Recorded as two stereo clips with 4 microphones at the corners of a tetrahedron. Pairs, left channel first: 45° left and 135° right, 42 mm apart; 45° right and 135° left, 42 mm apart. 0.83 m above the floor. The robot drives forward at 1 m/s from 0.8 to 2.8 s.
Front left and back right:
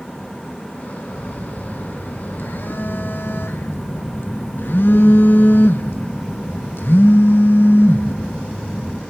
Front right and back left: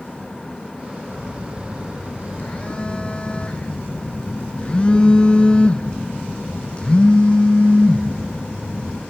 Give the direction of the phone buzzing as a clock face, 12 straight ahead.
12 o'clock.